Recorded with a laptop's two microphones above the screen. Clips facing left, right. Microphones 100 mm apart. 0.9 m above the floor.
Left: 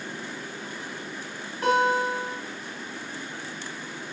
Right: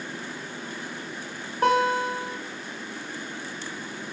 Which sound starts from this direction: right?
A guitar, at 1.6 s.